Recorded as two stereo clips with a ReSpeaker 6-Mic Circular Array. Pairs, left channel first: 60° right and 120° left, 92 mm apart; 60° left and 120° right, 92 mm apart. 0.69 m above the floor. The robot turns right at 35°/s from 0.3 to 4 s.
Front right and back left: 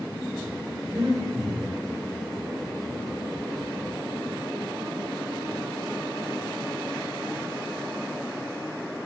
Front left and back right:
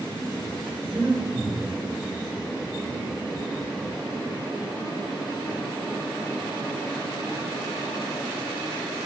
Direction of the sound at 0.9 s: 175° left.